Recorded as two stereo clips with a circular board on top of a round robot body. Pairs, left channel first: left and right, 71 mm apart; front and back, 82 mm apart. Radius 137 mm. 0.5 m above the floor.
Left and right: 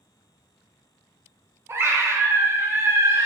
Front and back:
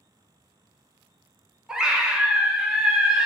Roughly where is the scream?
Right.